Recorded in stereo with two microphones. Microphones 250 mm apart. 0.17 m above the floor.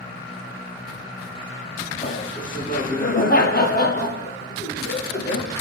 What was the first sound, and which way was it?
Laughter, 30° left (ahead or behind).